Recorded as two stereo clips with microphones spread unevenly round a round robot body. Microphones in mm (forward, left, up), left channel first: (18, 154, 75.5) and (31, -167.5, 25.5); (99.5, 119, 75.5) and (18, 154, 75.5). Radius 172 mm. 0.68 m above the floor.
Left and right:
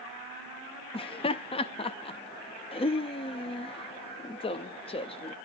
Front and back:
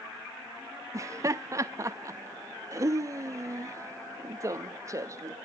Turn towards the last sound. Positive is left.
turn(degrees=170)